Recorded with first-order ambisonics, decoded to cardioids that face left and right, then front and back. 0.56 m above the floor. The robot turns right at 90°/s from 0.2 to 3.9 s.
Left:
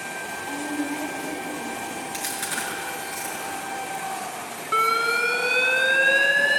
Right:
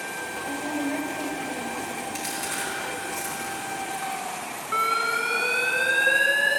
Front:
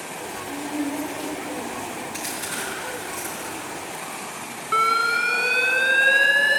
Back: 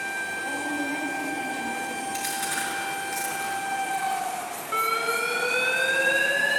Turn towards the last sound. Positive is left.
turn(degrees=15)